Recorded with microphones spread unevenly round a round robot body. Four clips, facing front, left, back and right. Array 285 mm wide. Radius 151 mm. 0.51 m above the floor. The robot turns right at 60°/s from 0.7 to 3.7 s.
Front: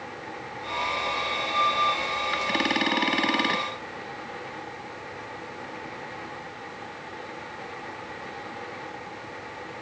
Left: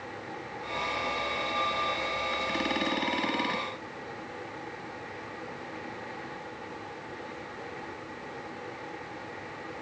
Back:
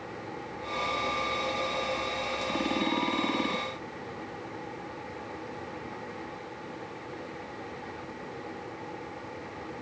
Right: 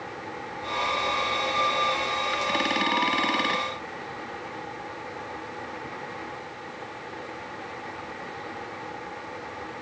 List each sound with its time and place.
Only background noise.